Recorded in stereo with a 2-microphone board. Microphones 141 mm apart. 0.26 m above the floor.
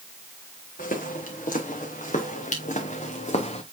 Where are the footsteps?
80° left, 3 m; by 3.6 s 50° left (ahead or behind), 1.6 m.